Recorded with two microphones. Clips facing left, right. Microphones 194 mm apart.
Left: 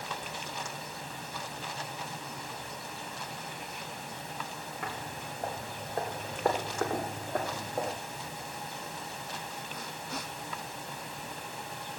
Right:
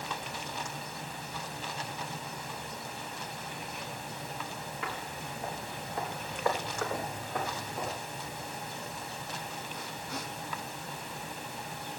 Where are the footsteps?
55° left (ahead or behind), 6.5 m.